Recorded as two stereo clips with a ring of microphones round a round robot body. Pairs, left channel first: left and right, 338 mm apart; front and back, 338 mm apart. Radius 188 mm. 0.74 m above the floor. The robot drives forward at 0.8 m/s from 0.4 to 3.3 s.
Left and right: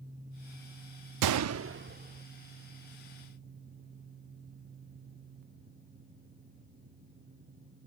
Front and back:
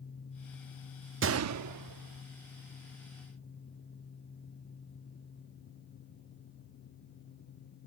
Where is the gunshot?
120° right; by 2.2 s 155° right.